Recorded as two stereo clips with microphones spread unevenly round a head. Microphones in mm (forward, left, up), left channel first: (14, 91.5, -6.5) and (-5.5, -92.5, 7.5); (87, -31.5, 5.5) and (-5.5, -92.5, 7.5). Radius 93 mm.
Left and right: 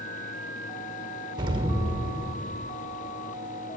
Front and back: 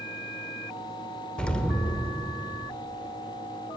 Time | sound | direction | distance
1.4 | an explosion | 45° right | 1.3 m